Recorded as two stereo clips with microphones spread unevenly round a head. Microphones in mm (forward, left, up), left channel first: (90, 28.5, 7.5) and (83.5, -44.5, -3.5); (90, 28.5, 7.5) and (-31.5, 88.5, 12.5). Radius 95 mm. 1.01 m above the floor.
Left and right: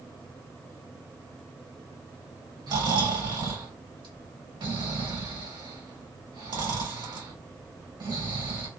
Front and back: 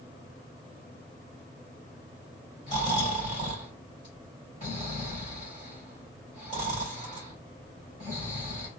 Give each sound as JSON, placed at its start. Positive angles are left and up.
{"t": 2.7, "sound": "snoring", "azimuth_deg": -85, "distance_m": 1.9}